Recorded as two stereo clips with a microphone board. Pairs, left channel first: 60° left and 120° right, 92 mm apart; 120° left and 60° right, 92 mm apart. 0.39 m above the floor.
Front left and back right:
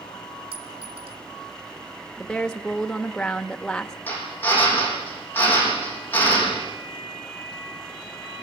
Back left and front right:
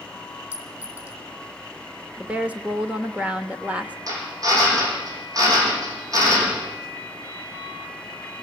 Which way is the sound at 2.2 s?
10° right.